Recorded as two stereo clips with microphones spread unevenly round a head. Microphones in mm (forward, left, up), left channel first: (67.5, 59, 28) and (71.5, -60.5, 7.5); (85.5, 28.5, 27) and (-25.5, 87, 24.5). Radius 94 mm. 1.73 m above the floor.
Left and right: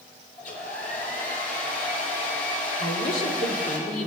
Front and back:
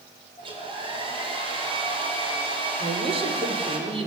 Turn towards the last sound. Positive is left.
turn(degrees=110)